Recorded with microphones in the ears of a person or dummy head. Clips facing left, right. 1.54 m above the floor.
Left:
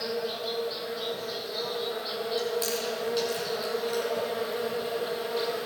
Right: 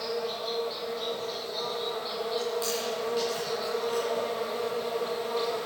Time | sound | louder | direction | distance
0.0 | an insect | left 1 dB | 10° left (ahead or behind) | 0.8 m
2.4 | chewing | left 2 dB | 25° left (ahead or behind) | 3.5 m